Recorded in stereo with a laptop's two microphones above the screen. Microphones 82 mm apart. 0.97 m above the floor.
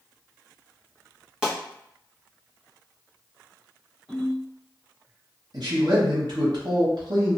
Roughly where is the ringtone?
Centre.